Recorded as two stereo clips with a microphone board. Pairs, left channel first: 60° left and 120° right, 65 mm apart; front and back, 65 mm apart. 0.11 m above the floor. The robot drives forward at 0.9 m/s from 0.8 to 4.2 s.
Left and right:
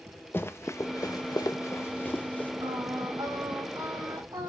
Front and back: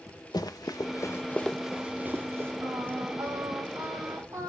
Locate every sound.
0.3 s running footsteps: 5° left, 1.0 m; by 2.5 s 125° left, 1.7 m
2.6 s singing: 140° right, 4.5 m; by 4.5 s 150° right, 5.5 m